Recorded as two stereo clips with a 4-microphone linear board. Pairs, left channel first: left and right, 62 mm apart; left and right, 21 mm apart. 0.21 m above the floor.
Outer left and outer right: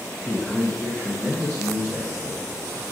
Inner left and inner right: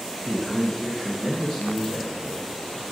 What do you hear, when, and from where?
0.2 s a man speaking: 5° left (ahead or behind), 1.6 m; by 2.8 s 45° left (ahead or behind), 3 m